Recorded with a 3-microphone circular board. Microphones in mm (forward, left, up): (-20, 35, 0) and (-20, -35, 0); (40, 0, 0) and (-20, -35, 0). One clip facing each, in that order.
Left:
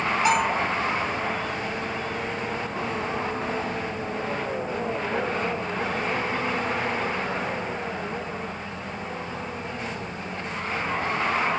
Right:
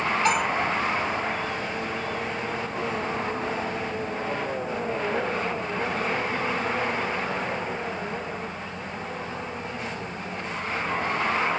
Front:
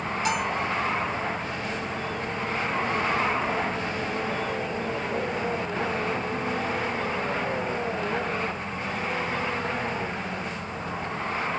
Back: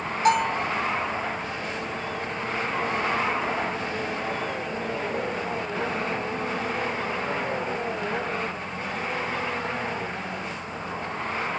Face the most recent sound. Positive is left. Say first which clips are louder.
# left 3 dB, back 7 dB
turn(degrees=165)